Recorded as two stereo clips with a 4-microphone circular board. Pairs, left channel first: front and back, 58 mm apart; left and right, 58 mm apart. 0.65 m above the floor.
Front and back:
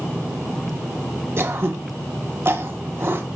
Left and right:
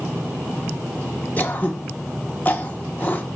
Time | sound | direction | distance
1.4 | throat clearing | 145° left | 1.0 m